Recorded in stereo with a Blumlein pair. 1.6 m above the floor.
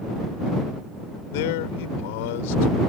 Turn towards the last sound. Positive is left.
turn(degrees=50)